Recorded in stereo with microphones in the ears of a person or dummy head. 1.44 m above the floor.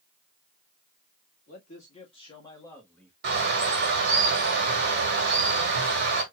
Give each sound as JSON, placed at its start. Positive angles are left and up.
{"t": 1.5, "sound": "a man speaking", "side_deg": 40, "distance_m": 2.0}
{"t": 3.2, "sound": "a bird", "side_deg": -55, "distance_m": 2.0}